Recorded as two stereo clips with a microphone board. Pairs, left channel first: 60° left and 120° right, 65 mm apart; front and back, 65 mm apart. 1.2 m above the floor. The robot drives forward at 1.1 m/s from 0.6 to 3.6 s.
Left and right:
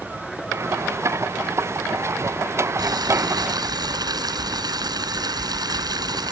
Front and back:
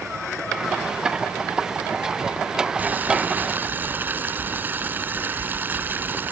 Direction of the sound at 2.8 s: 115° right.